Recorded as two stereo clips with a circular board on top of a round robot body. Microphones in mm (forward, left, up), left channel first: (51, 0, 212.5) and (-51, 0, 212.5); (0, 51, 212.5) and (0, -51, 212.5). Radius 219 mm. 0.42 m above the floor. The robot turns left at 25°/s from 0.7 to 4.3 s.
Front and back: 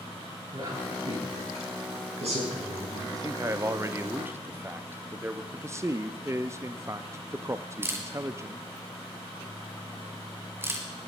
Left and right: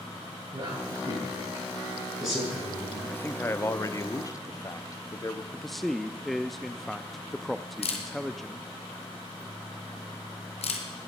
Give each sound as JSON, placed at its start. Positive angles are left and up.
{"t": 0.5, "sound": "a man speaking", "azimuth_deg": -140, "distance_m": 9.0}
{"t": 3.1, "sound": "a man speaking", "azimuth_deg": 150, "distance_m": 1.2}
{"t": 5.5, "sound": "a man speaking", "azimuth_deg": 175, "distance_m": 0.9}
{"t": 7.8, "sound": "a camera shutter", "azimuth_deg": 110, "distance_m": 1.9}